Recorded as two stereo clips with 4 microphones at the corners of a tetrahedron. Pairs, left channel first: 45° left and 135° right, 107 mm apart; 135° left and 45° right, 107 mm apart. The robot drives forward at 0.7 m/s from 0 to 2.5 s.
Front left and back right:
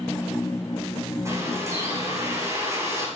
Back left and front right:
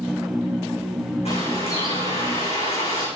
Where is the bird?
160° left, 8.5 m; by 3.1 s 165° left, 9.5 m.